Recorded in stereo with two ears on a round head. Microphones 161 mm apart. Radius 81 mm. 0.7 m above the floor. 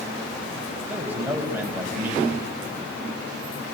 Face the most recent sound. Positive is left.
turn(degrees=-10)  # may be behind; listen again after turning